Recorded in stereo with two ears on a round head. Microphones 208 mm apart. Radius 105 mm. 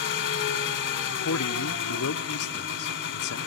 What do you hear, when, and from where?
0.0 s an engine running: 55° left (ahead or behind), 2.5 m
1.1 s a man speaking: 65° left (ahead or behind), 0.7 m